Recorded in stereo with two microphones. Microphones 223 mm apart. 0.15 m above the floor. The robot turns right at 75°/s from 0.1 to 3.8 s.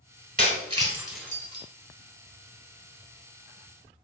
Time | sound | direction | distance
0.4 | breaking glass | 40° right (ahead or behind) | 1.0 m